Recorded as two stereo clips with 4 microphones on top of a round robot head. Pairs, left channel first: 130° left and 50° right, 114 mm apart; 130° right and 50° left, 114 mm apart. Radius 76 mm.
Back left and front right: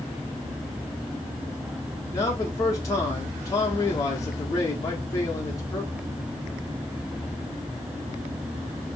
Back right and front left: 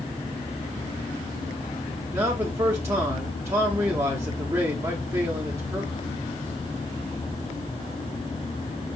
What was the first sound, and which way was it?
A man speaking, 100° left.